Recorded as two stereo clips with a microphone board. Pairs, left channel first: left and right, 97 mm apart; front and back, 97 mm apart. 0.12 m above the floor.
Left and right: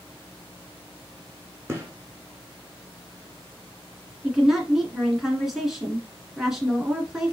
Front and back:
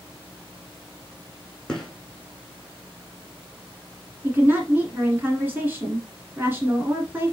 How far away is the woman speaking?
About 1.3 m.